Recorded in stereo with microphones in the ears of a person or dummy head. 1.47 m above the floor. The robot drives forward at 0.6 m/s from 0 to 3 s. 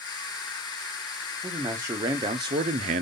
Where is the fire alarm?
No fire alarm in this recording.